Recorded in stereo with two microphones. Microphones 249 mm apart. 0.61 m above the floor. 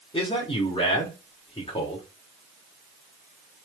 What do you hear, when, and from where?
0.1 s a man speaking: 20° left (ahead or behind), 1.0 m